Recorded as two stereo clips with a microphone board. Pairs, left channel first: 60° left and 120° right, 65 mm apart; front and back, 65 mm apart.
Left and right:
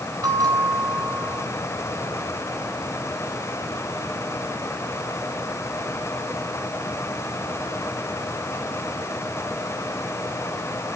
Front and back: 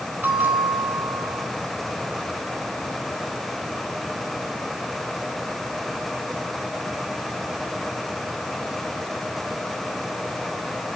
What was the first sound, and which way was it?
A bell, 120° right.